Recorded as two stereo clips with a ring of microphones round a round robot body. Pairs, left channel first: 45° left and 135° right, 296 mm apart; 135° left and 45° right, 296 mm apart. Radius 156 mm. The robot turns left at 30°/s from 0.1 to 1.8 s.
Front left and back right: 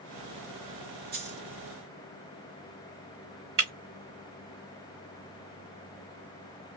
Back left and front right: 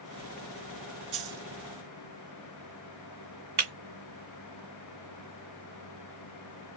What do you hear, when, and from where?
1.1 s a dropped coin: 75° right, 1.3 m; by 1.4 s 85° right, 1.3 m
3.6 s breaking glass: 90° right, 1.8 m